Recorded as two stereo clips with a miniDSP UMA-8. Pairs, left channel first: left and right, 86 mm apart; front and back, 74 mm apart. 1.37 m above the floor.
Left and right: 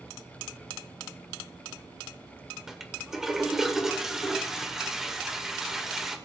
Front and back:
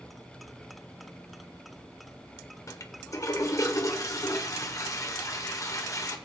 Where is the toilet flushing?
5° right, 1.3 m.